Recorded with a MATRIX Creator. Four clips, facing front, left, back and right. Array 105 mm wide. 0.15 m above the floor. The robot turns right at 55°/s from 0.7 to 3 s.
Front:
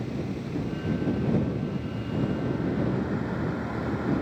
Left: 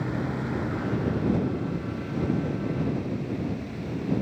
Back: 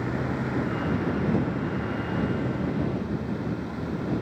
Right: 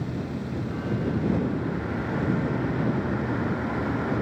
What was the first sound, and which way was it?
A vehicle, 155° left.